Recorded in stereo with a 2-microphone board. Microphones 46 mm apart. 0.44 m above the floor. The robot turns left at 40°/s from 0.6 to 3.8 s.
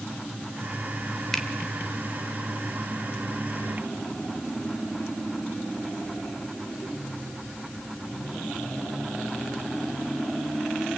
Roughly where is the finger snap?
Centre.